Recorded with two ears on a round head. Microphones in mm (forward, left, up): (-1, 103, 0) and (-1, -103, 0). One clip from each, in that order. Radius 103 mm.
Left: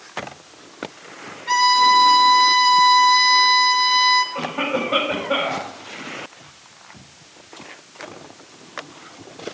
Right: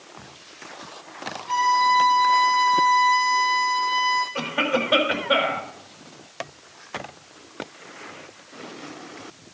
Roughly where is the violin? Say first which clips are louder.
Left 5 dB; left.